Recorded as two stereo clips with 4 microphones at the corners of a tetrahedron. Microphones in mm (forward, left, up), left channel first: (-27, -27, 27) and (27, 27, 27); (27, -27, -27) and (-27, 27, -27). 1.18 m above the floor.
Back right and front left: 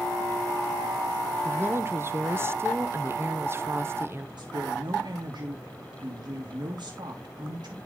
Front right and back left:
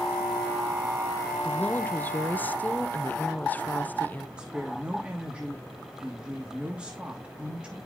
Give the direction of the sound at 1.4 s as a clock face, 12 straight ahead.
12 o'clock.